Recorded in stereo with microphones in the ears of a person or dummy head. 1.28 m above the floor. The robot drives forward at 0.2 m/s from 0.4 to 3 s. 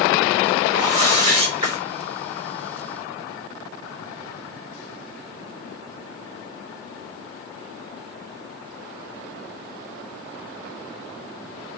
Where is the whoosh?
40° right (ahead or behind), 1.1 m; by 1.8 s 35° right (ahead or behind), 1.3 m.